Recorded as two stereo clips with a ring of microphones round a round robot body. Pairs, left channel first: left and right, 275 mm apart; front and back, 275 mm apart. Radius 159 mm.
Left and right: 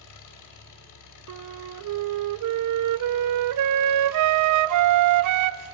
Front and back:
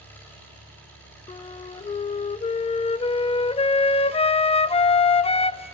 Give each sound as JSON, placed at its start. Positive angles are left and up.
{"t": 0.0, "sound": "an engine running", "azimuth_deg": 85, "distance_m": 3.5}
{"t": 1.3, "sound": "a flute", "azimuth_deg": -70, "distance_m": 0.5}